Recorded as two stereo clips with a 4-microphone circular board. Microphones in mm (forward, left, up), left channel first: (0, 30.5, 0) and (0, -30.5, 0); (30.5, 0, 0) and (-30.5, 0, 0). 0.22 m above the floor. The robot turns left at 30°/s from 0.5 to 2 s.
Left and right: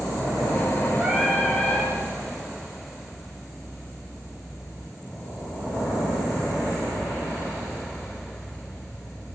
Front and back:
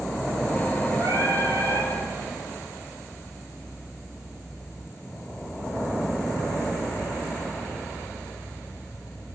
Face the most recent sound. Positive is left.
turn(degrees=160)